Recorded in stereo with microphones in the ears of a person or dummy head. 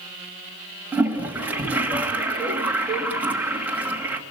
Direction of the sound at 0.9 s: 10° right (ahead or behind).